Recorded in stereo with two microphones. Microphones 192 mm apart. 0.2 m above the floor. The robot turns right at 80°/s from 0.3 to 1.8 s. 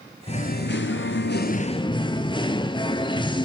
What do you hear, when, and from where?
0.3 s singing: 35° left, 0.9 m; by 3.5 s 155° left, 0.9 m